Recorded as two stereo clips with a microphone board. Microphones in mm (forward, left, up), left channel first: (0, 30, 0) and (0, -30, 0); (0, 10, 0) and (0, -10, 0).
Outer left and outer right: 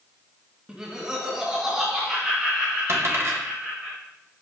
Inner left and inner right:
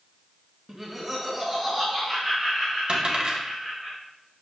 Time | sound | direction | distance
0.7 | laughter | 15° right (ahead or behind) | 1.2 m
2.9 | a dropped coin | 45° right (ahead or behind) | 1.8 m